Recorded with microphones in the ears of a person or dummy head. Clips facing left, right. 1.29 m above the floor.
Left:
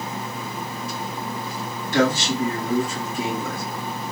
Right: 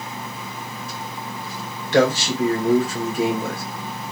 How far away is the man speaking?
About 1.1 m.